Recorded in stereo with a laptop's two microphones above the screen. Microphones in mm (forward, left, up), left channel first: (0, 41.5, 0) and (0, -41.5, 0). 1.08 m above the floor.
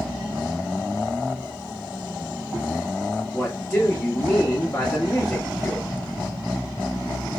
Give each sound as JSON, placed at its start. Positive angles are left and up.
{"t": 3.3, "sound": "a man speaking", "side_deg": 20, "distance_m": 1.5}